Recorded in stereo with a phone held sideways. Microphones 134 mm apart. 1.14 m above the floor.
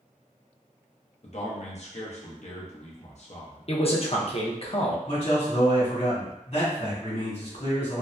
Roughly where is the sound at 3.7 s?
Left.